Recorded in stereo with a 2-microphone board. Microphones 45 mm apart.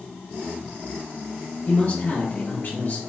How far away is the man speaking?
About 1.8 m.